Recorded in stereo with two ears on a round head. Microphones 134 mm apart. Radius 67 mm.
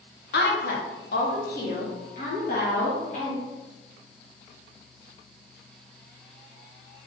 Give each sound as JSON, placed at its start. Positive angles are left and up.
{"t": 0.3, "sound": "a woman speaking", "side_deg": 75, "distance_m": 1.0}